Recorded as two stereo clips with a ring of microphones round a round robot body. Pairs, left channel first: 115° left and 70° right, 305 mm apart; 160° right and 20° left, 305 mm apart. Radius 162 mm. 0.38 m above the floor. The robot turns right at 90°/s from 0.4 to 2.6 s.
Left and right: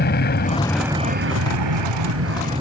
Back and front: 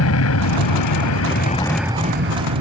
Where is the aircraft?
170° left; by 2.6 s 5° left.